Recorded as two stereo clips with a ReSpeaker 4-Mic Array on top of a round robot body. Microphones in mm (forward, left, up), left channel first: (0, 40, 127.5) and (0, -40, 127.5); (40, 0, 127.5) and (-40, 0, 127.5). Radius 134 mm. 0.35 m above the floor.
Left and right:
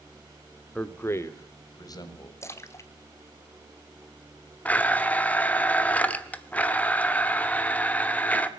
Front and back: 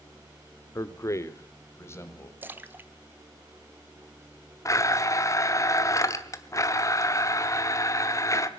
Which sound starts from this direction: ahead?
A man speaking, at 0.8 s.